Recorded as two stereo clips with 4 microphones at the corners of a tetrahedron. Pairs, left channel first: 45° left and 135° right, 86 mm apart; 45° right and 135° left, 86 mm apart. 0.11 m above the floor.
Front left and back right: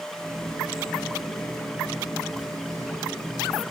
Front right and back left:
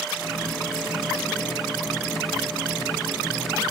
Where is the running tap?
85° right, 5.5 m.